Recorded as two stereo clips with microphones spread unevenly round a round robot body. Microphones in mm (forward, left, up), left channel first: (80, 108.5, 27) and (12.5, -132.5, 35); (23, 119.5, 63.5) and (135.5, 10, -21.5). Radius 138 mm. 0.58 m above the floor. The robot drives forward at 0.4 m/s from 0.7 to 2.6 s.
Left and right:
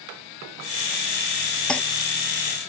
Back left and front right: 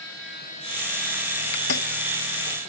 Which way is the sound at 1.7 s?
160° left.